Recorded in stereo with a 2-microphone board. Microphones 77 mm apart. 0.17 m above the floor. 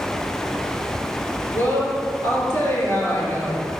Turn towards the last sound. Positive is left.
turn(degrees=30)  # may be behind; listen again after turning